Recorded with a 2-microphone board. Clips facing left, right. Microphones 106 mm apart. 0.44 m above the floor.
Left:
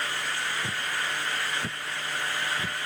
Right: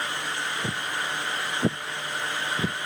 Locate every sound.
0.6 s footsteps: 35° right (ahead or behind); by 2.8 s 50° right (ahead or behind)